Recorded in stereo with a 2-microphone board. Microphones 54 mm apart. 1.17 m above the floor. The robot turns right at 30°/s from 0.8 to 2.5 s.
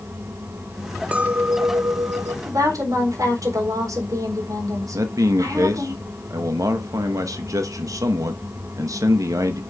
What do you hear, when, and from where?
1.1 s a clink: 155° right, 1.3 m; by 2.4 s 120° right, 1.3 m
2.5 s a woman speaking: 80° right, 4 m; by 5.9 s 85° right, 4 m
4.9 s a man speaking: 85° right, 1.1 m